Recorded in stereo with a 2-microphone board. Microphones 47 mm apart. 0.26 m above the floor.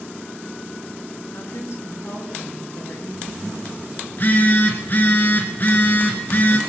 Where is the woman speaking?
65° left (ahead or behind), 3.5 m; by 4.0 s 70° left (ahead or behind), 7 m.